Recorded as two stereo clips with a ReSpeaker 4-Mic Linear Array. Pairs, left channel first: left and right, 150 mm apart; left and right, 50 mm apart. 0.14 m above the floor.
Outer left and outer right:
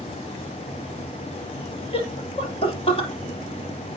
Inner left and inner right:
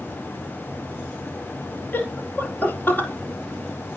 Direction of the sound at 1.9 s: 40° left (ahead or behind).